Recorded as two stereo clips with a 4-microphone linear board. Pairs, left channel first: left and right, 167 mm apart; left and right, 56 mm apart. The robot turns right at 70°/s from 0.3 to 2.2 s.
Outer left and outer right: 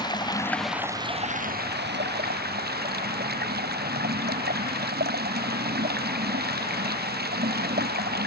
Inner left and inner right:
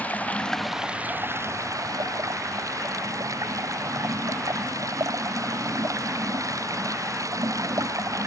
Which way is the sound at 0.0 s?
155° left.